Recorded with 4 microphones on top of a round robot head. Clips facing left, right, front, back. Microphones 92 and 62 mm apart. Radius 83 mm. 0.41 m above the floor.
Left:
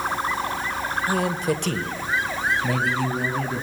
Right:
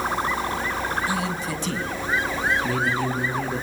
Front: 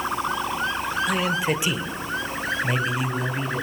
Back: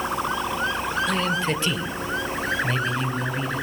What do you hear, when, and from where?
1.1 s a man speaking: 80° left, 1.7 m; by 3.6 s 75° left, 4.5 m